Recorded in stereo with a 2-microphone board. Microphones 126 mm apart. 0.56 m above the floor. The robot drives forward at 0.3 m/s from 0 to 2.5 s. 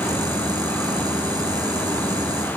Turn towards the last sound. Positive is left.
No sound to turn to.